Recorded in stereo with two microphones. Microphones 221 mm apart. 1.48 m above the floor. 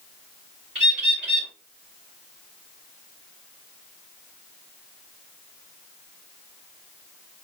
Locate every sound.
0.8 s a bird: 5° right (ahead or behind), 2.0 m